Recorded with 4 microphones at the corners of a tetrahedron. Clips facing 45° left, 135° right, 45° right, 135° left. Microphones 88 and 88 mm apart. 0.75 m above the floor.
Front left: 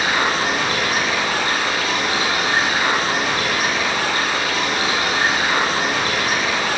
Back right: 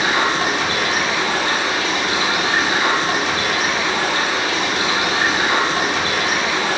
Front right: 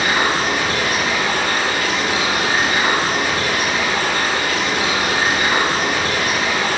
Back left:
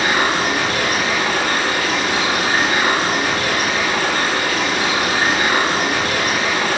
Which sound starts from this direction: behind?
Running water, at 0.0 s.